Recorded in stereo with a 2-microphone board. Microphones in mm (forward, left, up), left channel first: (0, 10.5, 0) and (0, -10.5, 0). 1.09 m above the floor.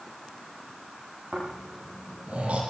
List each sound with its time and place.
1.3 s snoring: 75° right (ahead or behind), 8 m